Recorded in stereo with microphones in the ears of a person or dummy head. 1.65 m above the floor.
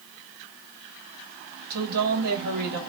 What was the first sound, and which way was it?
A woman speaking, 55° right (ahead or behind).